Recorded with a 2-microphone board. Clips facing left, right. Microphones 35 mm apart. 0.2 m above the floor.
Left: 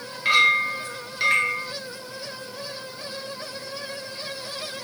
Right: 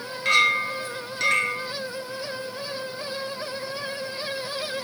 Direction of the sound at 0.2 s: 15° left (ahead or behind).